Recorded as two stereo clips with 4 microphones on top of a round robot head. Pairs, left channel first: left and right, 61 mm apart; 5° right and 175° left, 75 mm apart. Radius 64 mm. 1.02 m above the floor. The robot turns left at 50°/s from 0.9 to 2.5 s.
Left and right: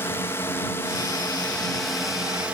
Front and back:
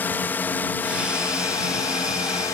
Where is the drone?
50° left; by 2.5 s 30° right.